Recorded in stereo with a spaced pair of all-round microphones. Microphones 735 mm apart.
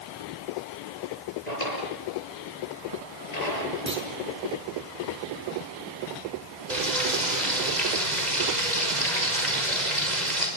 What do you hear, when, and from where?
1.5 s a drawer: 60° left (ahead or behind), 7 m
3.9 s a clunk: 15° right (ahead or behind), 4.5 m
6.7 s frying: 70° right (ahead or behind), 6 m